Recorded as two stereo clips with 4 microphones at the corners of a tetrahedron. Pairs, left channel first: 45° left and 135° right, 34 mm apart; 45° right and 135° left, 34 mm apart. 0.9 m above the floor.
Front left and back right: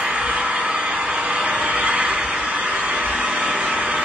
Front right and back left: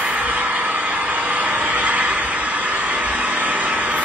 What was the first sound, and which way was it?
An engine running, straight behind.